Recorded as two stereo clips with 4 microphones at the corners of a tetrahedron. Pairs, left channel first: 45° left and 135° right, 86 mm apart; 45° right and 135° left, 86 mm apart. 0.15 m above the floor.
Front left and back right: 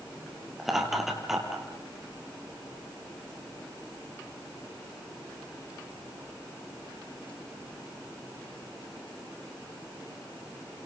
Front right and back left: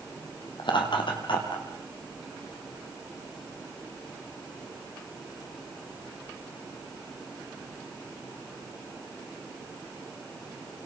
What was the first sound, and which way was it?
Laughter, 45° right.